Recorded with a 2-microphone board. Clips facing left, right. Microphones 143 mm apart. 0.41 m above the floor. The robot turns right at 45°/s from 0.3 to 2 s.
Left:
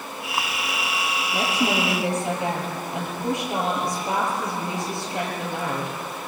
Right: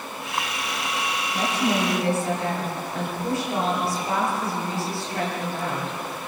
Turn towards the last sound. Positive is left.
turn(degrees=165)